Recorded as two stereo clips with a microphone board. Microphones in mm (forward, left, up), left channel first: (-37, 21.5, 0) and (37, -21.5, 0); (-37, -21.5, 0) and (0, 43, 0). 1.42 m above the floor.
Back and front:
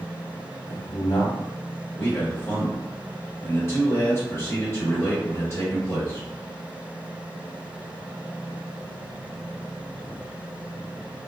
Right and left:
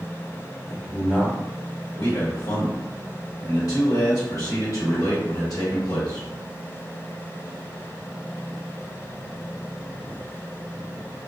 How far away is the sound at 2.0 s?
About 1.5 m.